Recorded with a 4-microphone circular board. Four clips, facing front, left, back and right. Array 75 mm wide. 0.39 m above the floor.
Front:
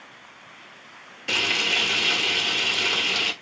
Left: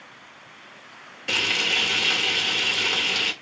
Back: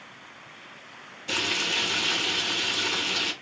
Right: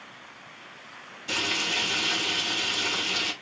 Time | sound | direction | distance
1.3 | frying | 50° left | 2.5 m